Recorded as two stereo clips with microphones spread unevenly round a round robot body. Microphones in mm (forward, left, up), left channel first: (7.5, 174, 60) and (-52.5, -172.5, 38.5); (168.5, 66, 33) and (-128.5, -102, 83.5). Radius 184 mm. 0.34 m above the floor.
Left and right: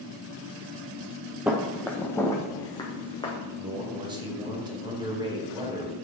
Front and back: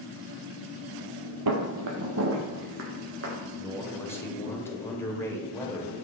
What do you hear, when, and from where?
1.5 s footsteps: 175° left, 0.8 m; by 3.3 s 155° left, 2.0 m
3.6 s a man speaking: 35° right, 1.5 m